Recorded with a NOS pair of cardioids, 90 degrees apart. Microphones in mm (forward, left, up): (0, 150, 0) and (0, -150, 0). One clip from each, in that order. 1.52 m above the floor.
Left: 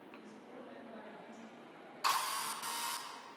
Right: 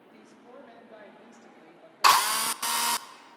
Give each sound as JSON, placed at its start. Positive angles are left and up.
{"t": 0.1, "sound": "a woman speaking", "azimuth_deg": -50, "distance_m": 4.0}
{"t": 2.0, "sound": "a drill", "azimuth_deg": -70, "distance_m": 0.7}